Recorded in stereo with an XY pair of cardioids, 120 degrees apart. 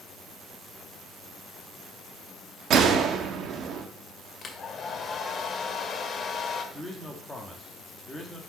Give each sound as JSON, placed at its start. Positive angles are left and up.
{"t": 2.7, "sound": "a gunshot", "azimuth_deg": -60, "distance_m": 1.1}
{"t": 4.4, "sound": "a hair dryer", "azimuth_deg": 40, "distance_m": 1.5}
{"t": 6.7, "sound": "a man speaking", "azimuth_deg": 10, "distance_m": 1.9}